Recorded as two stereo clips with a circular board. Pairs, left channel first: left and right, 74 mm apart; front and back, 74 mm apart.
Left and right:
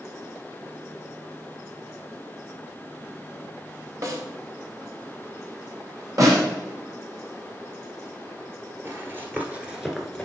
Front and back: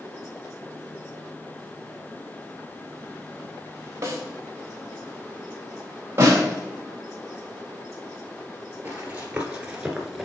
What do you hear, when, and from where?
4.0 s a snare drum: 130° right, 1.4 m
6.2 s a snare drum: 125° right, 2.5 m
8.8 s running footsteps: 120° right, 1.9 m; by 10.2 s 80° left, 1.4 m